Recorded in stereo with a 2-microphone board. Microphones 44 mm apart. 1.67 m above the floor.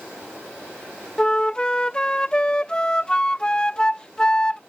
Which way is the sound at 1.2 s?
15° left (ahead or behind).